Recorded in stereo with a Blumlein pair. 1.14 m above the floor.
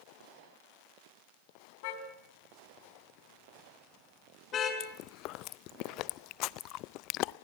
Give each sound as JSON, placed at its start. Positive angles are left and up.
{"t": 1.8, "sound": "a car horn", "azimuth_deg": 50, "distance_m": 3.5}
{"t": 4.8, "sound": "chewing", "azimuth_deg": 40, "distance_m": 0.5}